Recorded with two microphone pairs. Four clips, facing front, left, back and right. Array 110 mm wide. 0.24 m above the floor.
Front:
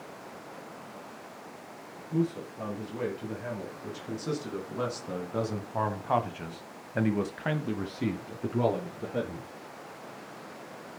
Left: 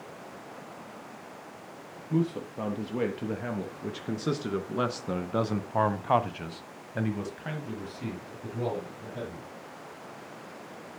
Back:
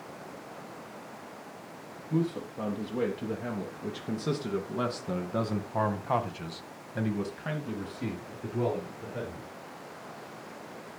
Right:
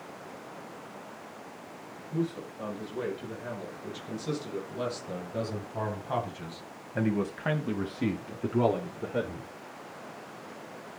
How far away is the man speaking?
About 5 m.